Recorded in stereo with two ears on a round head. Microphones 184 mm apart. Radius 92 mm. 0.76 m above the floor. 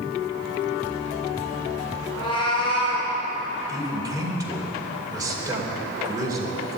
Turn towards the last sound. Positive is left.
turn(degrees=-20)  # may be behind; listen again after turning